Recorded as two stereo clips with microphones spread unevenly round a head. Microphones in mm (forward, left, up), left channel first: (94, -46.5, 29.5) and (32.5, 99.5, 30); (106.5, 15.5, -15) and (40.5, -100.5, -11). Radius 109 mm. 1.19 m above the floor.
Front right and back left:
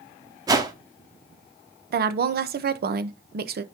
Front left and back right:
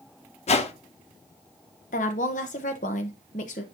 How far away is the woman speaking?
About 0.8 m.